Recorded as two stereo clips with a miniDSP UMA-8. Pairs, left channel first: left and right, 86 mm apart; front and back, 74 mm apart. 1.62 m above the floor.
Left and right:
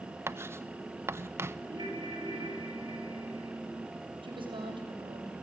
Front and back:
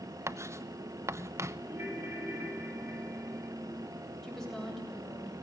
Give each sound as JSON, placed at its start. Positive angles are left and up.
{"t": 0.3, "sound": "writing", "azimuth_deg": -140, "distance_m": 0.9}
{"t": 1.7, "sound": "a ringtone", "azimuth_deg": -120, "distance_m": 7.5}
{"t": 4.2, "sound": "a woman speaking", "azimuth_deg": -85, "distance_m": 8.0}